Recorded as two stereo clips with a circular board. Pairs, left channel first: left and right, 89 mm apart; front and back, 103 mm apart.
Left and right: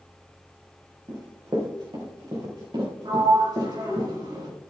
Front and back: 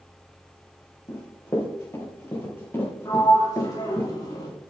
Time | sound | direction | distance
1.1 | running footsteps | 55° right | 4 m
3.0 | a sliding door | 55° right | 6 m